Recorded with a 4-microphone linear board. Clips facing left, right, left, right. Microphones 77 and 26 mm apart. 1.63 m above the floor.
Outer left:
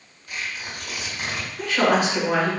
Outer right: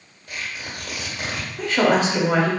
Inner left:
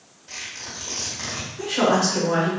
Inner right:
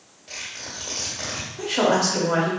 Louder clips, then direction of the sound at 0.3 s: Even, even; 50° right (ahead or behind).